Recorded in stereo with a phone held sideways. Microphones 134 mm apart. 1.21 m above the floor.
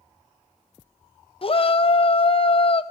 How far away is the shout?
About 0.6 m.